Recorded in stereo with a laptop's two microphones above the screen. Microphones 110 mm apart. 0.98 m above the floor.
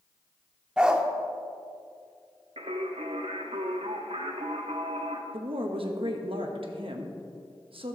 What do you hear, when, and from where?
0.8 s a dog barking: 10° right (ahead or behind), 0.7 m
2.6 s singing: 75° right (ahead or behind), 1.0 m
5.3 s a woman speaking: 60° right (ahead or behind), 1.4 m